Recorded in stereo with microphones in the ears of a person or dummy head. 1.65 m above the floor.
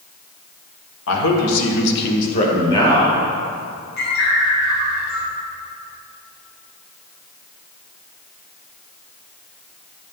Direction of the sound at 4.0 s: 65° left (ahead or behind).